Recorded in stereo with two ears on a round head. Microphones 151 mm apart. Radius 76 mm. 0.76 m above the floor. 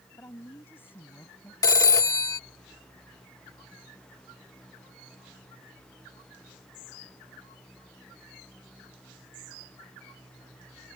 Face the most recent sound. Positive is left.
turn(degrees=20)  # may be behind; listen again after turning